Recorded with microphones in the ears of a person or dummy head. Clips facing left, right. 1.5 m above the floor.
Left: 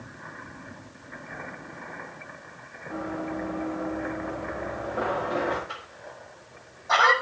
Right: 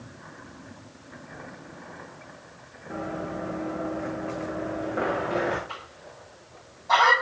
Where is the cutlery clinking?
I don't hear cutlery clinking.